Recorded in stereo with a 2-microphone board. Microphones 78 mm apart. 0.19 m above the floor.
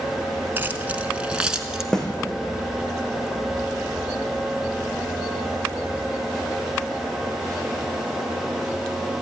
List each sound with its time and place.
0.6 s keys jangling: 25° right (ahead or behind), 1.5 m; by 1.8 s 5° right (ahead or behind), 1.9 m
1.9 s a snare drum: 5° left (ahead or behind), 3.5 m